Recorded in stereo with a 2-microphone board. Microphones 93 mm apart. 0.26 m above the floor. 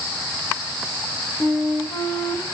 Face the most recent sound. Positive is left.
turn(degrees=35)  # may be behind; listen again after turning